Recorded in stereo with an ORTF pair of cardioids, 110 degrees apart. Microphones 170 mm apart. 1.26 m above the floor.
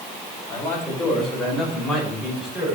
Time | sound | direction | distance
0.5 | a man speaking | 15° left | 5 m